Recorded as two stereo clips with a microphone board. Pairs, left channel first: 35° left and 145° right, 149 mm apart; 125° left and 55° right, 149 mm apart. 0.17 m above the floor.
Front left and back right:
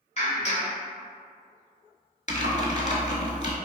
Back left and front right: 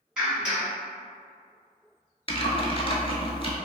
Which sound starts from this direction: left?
Typing on a keyboard, at 2.3 s.